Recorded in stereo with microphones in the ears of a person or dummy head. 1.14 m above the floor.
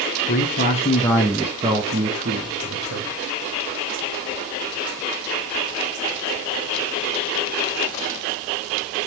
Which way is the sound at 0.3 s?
45° left (ahead or behind).